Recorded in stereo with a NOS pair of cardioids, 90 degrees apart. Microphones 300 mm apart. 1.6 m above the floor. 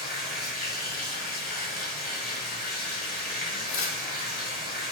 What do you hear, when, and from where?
0.0 s running water: 30° left, 1.1 m
3.7 s tearing paper: 45° left, 0.7 m